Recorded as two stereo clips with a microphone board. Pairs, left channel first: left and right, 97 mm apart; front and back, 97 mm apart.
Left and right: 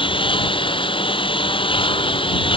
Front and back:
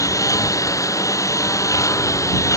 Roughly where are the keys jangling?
I don't hear keys jangling.